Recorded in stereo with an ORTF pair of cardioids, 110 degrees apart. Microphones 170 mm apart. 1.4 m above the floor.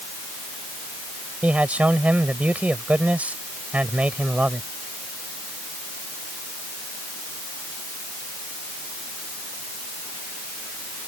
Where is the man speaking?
10° right.